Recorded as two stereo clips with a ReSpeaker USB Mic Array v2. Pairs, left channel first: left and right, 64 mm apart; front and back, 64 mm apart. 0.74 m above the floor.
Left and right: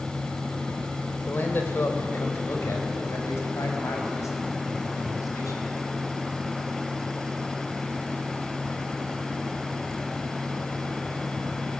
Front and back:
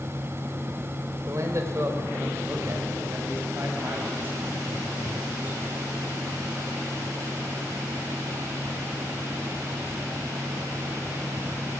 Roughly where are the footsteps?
I don't hear footsteps.